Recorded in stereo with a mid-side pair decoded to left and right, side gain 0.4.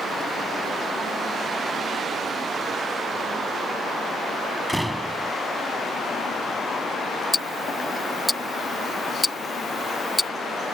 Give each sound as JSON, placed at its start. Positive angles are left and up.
{"t": 4.7, "sound": "a door slam", "azimuth_deg": -10}
{"t": 7.3, "sound": "ticking", "azimuth_deg": 15}